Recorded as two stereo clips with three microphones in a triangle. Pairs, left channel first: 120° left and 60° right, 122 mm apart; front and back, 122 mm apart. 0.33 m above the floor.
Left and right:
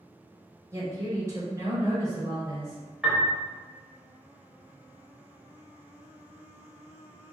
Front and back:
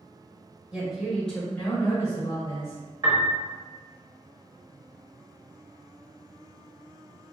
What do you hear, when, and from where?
0.7 s a woman speaking: 105° right, 1.2 m; by 2.8 s 5° left, 1.3 m
3.0 s a piano: 145° right, 0.7 m